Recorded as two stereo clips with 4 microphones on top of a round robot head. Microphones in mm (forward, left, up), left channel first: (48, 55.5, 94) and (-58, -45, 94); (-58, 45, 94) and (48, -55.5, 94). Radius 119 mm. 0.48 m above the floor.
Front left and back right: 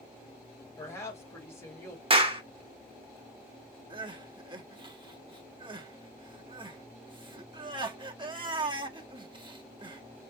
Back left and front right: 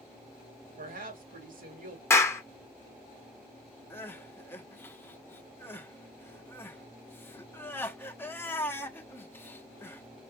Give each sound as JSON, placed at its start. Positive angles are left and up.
{"t": 0.8, "sound": "a woman speaking", "azimuth_deg": -30, "distance_m": 2.0}
{"t": 2.1, "sound": "a clap", "azimuth_deg": -160, "distance_m": 1.3}
{"t": 3.9, "sound": "crying", "azimuth_deg": -160, "distance_m": 1.1}